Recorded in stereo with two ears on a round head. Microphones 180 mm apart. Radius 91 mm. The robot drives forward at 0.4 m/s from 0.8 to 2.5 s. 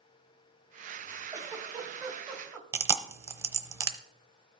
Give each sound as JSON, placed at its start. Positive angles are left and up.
{"t": 1.3, "sound": "a giggle", "side_deg": -15, "distance_m": 0.9}
{"t": 2.7, "sound": "chewing", "side_deg": -15, "distance_m": 0.7}